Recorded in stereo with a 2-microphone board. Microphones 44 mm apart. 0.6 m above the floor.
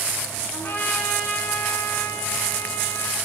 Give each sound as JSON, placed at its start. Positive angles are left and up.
{"t": 0.5, "sound": "a trumpet", "side_deg": 60, "distance_m": 3.5}